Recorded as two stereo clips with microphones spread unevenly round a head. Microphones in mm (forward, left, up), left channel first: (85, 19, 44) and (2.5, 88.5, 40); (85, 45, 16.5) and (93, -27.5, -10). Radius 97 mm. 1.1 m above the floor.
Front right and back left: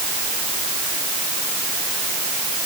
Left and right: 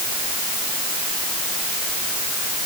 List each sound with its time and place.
Only background noise.